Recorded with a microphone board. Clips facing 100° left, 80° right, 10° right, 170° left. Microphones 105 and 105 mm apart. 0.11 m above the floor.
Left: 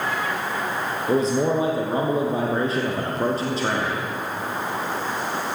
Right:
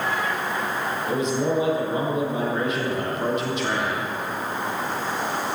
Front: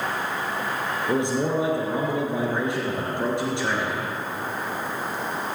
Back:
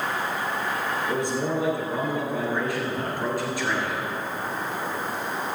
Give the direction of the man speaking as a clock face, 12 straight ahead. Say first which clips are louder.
Left 4 dB, front 5 dB; 10 o'clock.